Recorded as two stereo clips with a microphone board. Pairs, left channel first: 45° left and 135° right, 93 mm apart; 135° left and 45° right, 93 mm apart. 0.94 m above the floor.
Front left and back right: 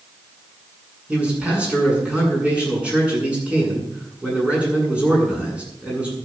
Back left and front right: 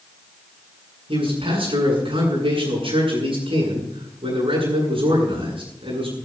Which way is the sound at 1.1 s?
55° right.